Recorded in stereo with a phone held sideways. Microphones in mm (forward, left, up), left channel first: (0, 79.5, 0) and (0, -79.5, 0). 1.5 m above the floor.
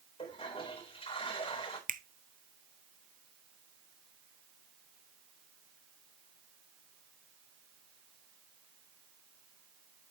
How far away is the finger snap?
About 0.7 m.